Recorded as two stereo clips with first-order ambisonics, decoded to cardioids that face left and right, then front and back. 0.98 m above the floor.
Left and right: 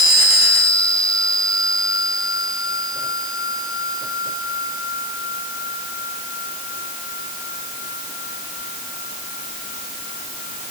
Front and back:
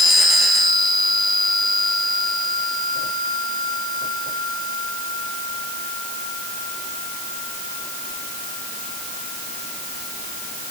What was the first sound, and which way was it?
Only background noise.